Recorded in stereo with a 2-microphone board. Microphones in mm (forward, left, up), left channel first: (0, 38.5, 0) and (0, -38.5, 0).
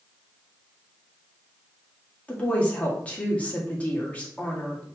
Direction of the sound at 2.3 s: 20° left (ahead or behind).